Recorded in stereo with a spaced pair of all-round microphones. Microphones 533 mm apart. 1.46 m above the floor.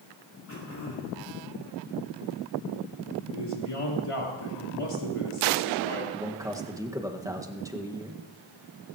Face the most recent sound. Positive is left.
turn(degrees=-5)  # may be behind; listen again after turning